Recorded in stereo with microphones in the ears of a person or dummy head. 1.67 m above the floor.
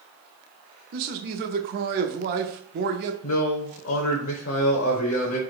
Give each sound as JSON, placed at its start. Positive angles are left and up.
{"t": 0.9, "sound": "a man speaking", "side_deg": -45, "distance_m": 0.6}
{"t": 3.2, "sound": "a man speaking", "side_deg": 75, "distance_m": 0.7}